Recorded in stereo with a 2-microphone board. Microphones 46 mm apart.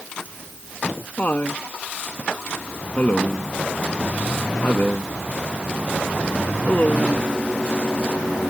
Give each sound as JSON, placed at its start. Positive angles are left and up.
{"t": 0.2, "sound": "laughter", "side_deg": 40}